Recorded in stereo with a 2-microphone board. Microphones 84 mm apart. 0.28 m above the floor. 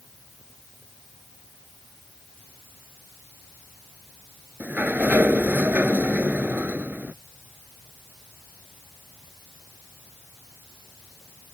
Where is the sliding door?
20° right (ahead or behind).